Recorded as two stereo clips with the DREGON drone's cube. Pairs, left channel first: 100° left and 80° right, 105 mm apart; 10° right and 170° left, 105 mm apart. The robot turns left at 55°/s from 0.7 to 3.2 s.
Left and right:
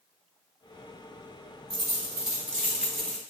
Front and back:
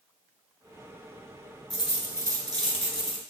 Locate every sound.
1.7 s a dropped coin: 100° right, 1.0 m; by 3.2 s 175° left, 1.0 m